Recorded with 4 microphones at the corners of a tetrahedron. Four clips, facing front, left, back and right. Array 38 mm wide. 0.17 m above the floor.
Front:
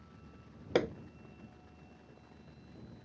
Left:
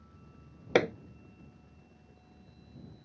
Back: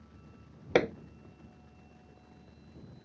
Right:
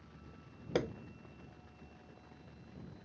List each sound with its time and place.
0.8 s hammering: 120° left